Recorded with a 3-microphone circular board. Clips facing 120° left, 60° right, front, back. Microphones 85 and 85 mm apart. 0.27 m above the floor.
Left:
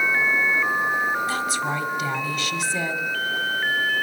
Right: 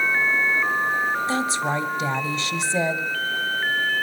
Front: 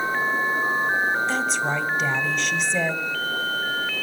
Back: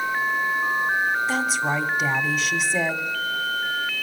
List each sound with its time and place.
1.3 s a woman speaking: 100° right, 1.2 m